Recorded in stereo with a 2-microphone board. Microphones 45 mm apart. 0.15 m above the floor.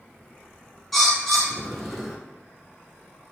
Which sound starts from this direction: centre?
A bird, at 0.9 s.